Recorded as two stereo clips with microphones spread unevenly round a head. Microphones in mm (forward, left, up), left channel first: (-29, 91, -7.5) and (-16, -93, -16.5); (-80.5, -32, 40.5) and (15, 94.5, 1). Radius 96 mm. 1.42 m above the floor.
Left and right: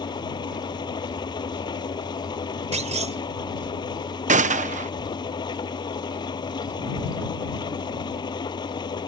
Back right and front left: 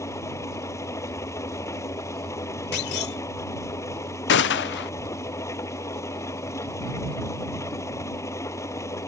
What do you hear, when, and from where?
0.0 s an engine running: 160° left
2.7 s a clunk: 140° right
4.3 s a gunshot: 135° right